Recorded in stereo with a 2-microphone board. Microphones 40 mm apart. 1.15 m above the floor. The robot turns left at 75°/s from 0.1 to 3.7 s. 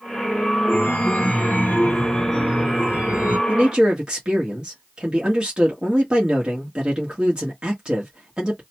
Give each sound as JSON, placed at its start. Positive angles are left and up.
{"t": 0.7, "sound": "a chime", "azimuth_deg": 130, "distance_m": 0.8}
{"t": 3.5, "sound": "a man speaking", "side_deg": -40, "distance_m": 1.2}